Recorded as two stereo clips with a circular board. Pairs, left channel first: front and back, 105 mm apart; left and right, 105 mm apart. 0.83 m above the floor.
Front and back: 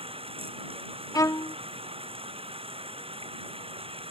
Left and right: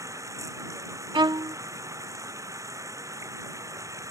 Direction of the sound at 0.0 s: 150° right.